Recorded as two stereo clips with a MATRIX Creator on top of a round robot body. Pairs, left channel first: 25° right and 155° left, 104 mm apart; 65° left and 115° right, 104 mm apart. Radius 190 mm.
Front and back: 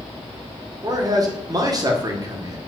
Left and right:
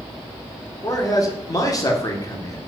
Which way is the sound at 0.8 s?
115° left.